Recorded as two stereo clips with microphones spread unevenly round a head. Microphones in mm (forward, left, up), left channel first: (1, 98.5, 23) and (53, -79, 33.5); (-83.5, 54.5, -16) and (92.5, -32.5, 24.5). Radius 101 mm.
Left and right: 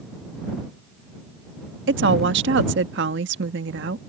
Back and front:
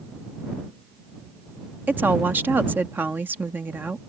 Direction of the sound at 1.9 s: 110° right.